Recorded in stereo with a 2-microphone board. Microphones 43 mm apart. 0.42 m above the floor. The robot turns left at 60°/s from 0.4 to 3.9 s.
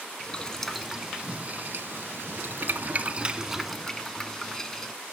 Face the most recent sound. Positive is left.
turn(degrees=10)  # may be behind; listen again after turning